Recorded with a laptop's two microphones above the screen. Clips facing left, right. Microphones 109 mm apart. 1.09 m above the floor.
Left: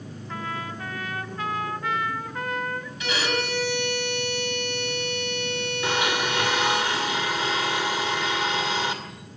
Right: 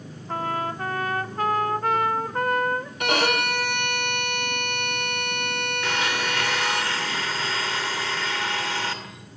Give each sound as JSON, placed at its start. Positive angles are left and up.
{"t": 0.3, "sound": "a trumpet", "side_deg": -45, "distance_m": 1.3}
{"t": 3.0, "sound": "a violin", "side_deg": -60, "distance_m": 1.8}
{"t": 5.8, "sound": "a blender", "side_deg": 15, "distance_m": 2.5}